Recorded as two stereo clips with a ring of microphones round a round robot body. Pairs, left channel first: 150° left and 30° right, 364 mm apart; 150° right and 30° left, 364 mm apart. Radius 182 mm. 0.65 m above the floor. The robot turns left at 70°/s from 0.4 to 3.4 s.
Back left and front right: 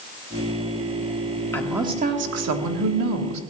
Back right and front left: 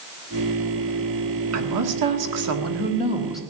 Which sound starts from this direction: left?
A woman speaking, at 1.5 s.